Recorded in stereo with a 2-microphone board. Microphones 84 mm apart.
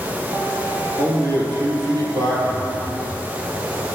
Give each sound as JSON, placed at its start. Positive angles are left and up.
{"t": 1.0, "sound": "a man speaking", "side_deg": -55, "distance_m": 3.0}
{"t": 2.5, "sound": "a phone buzzing", "side_deg": 15, "distance_m": 3.0}